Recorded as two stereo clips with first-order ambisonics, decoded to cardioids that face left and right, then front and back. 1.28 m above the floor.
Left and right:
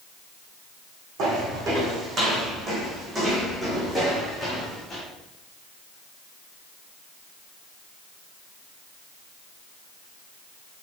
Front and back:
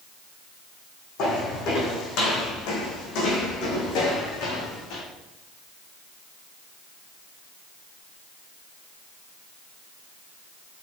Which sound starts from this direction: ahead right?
Footsteps, at 1.2 s.